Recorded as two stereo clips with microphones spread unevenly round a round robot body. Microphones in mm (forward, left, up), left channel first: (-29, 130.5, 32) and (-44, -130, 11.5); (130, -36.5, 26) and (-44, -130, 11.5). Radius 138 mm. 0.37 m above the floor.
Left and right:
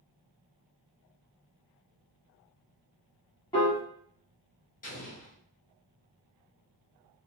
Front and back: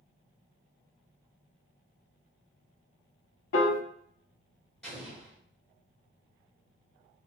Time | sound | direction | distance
3.5 | a piano | 15° left | 0.6 m
4.8 | an explosion | 120° left | 1.2 m